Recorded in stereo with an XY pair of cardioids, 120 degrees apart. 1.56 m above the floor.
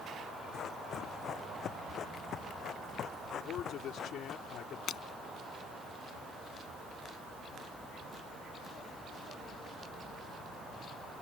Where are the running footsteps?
55° left.